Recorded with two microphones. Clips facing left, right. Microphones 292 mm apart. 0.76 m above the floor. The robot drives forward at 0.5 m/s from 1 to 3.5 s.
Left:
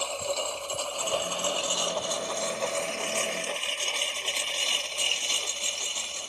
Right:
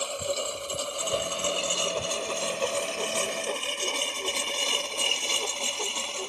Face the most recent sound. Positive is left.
turn(degrees=-70)  # may be behind; listen again after turning